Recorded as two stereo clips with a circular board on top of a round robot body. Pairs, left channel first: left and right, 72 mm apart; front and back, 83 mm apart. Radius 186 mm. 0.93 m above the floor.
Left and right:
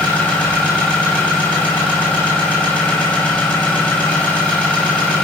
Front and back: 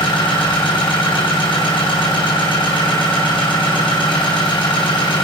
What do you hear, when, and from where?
0.0 s an engine running: 15° left, 4.5 m